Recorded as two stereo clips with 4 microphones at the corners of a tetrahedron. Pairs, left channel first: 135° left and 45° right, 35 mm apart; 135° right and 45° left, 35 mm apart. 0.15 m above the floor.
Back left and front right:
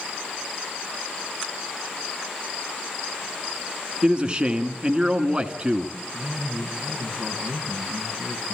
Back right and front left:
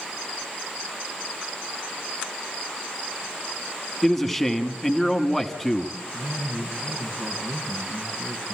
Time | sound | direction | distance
4.0 | a man speaking | 55° right | 1.2 m
6.1 | a man speaking | 15° left | 4.5 m